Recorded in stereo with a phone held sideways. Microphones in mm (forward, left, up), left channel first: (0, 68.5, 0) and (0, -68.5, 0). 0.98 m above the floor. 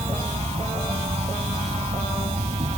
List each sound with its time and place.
0.0 s an insect: 50° right (ahead or behind)